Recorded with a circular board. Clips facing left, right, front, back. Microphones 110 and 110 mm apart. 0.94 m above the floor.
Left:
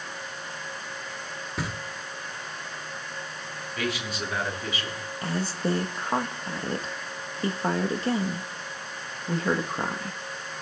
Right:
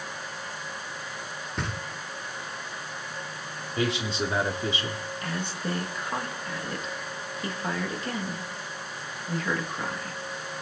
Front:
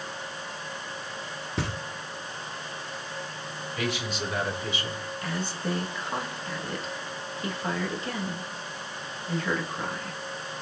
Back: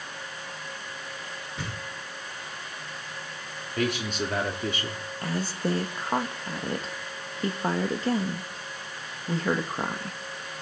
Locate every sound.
1.6 s knocking: 5° left, 1.4 m
3.8 s a man speaking: 150° right, 2.5 m
5.2 s a woman speaking: 140° left, 1.2 m